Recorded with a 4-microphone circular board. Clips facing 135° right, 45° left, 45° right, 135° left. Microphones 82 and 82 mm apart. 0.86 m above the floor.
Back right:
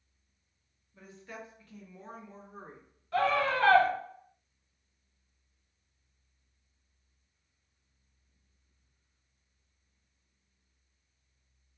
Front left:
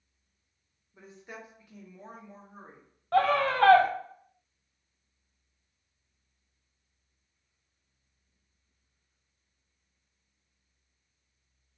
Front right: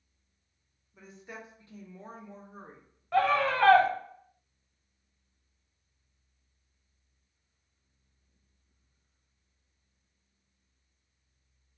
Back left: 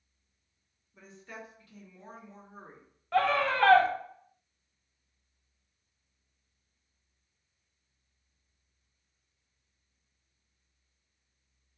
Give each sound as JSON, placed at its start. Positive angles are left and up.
{"t": 0.9, "sound": "a woman speaking", "azimuth_deg": 40, "distance_m": 0.8}
{"t": 3.1, "sound": "a scream", "azimuth_deg": 40, "distance_m": 0.7}